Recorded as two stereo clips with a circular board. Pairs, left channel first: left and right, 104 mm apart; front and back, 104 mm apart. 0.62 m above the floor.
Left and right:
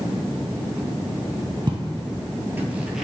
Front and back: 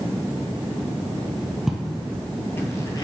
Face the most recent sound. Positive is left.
turn(degrees=-5)